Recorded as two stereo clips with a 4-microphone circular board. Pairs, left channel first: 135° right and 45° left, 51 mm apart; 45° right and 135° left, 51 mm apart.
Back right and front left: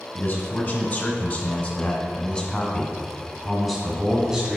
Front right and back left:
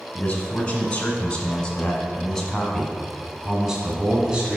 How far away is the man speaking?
About 2 m.